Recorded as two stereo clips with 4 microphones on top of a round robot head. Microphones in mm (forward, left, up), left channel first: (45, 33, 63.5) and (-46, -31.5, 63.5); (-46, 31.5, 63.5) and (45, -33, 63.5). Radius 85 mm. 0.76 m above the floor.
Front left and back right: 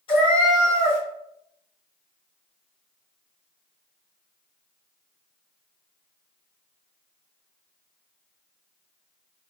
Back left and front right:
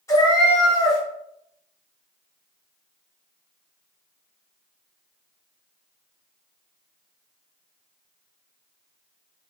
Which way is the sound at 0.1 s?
80° left.